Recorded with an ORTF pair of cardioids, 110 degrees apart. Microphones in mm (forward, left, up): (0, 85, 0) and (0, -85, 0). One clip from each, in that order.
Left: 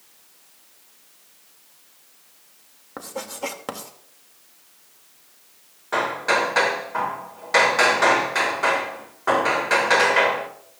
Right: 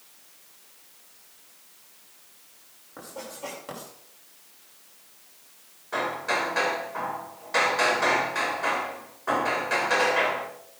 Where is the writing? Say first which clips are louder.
Left 7 dB; 65° left, 2.5 m.